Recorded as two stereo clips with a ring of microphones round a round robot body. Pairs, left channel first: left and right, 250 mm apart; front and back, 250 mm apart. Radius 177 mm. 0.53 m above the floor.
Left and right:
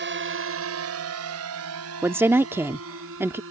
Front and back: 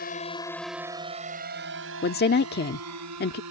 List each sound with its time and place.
0.0 s a drone: 55° right; by 3.5 s 145° right
2.0 s a woman speaking: 15° right